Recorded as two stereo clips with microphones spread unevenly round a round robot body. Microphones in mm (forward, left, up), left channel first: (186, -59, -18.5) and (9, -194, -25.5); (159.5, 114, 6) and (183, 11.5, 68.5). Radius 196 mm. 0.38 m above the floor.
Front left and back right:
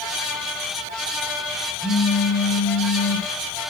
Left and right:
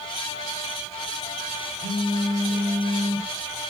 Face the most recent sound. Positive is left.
turn(degrees=110)